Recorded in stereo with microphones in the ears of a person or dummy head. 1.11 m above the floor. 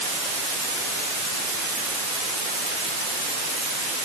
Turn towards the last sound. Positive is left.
No sound to turn to.